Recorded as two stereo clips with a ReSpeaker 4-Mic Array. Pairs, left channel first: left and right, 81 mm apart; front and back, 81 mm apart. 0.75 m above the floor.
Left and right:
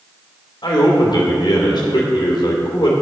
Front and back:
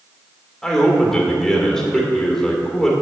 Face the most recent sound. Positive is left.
turn(degrees=85)